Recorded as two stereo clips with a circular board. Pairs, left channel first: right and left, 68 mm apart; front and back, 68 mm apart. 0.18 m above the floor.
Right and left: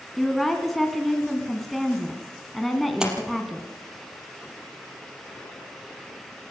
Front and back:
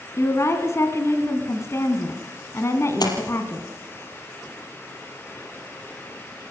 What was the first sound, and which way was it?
A woman speaking, straight ahead.